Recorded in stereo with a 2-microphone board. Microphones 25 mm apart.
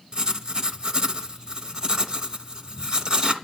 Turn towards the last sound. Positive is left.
turn(degrees=-35)  # may be behind; listen again after turning